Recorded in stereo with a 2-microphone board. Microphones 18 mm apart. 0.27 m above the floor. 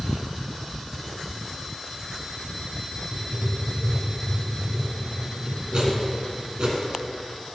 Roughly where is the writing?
Right.